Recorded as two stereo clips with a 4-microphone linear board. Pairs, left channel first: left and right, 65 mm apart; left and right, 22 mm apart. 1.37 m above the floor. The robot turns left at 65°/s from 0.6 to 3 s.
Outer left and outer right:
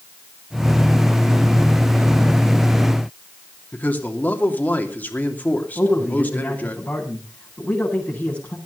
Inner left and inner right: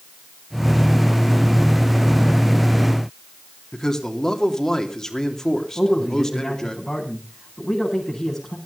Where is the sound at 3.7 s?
25° left (ahead or behind), 3 m.